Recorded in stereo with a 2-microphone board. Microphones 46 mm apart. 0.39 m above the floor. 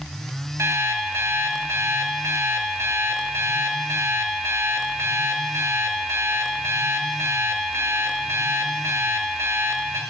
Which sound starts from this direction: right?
An alarm clock, at 0.6 s.